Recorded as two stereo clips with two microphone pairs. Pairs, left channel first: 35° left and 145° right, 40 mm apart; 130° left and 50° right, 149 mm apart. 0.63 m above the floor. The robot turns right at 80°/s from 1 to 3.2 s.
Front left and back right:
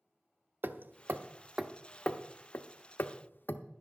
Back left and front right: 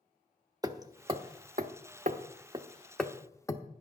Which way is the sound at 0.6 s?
115° right.